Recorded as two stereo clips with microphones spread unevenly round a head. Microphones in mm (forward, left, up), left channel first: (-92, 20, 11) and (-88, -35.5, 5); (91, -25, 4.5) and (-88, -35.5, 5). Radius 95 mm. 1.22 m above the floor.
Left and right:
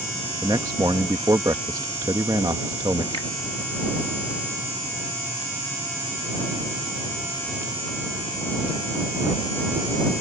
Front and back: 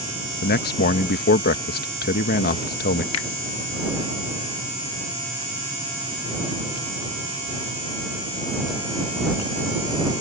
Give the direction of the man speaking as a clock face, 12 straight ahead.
1 o'clock.